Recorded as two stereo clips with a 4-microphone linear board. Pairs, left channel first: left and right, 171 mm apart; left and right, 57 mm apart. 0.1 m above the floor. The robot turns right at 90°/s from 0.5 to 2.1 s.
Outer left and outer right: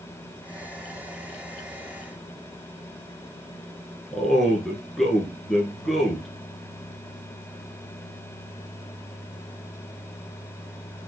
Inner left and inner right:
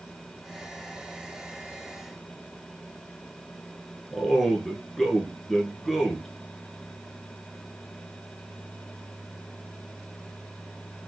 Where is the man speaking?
Centre (ahead or behind), 1.1 m.